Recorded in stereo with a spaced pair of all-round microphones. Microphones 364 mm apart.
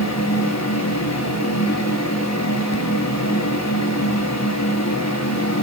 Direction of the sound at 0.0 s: 50° left (ahead or behind).